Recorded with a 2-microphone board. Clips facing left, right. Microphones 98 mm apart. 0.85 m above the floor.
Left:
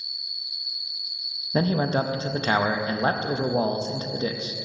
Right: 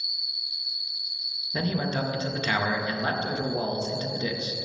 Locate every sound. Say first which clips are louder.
0.0 s an insect: right 2 dB; 35° right (ahead or behind), 1.9 m
1.5 s a man speaking: left 5 dB; 35° left (ahead or behind), 0.5 m